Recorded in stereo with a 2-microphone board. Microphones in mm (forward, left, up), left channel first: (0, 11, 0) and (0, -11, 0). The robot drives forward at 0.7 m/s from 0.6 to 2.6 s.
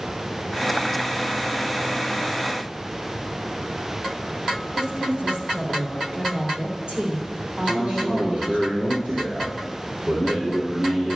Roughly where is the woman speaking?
Right.